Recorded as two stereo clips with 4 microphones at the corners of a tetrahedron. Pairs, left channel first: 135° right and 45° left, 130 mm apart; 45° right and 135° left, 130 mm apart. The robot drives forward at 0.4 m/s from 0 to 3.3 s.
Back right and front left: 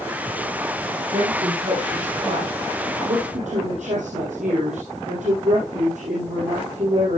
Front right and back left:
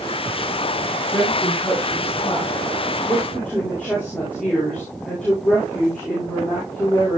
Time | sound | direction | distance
1.1 | a woman speaking | 30° left | 9 m